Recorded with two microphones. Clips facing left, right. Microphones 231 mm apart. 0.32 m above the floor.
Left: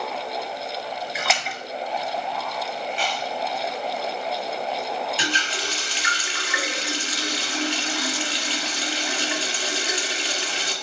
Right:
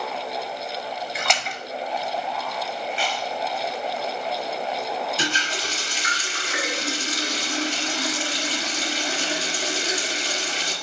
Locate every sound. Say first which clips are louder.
1.1 s a splash: even; centre (ahead or behind), 0.6 m
2.9 s chewing: even; 45° left (ahead or behind), 2 m
5.2 s a running tap: right 1 dB; 45° right (ahead or behind), 1.2 m